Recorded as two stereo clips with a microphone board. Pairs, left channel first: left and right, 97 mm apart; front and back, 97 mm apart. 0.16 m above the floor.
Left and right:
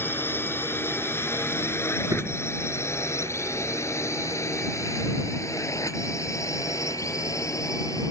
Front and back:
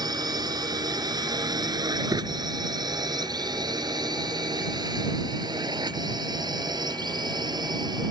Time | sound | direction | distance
0.0 | a drone | 150° left | ?
2.1 | a door slam | 140° right | ?